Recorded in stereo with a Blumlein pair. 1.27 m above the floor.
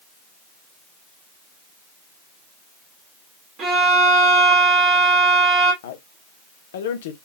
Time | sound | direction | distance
3.6 | a violin | 30° right | 2 m
5.8 | a man speaking | 55° left | 1.0 m